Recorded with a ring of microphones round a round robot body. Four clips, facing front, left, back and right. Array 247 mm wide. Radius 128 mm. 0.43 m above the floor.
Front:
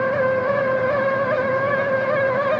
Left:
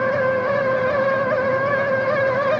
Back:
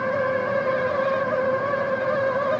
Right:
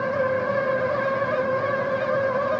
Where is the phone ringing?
No phone ringing in this recording.